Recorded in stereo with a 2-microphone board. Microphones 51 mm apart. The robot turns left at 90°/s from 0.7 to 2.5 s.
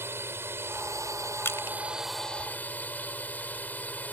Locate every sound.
0.0 s a drone: 50° right; by 4.1 s 145° left
1.4 s crushing: 50° left (ahead or behind); by 1.8 s 70° left (ahead or behind)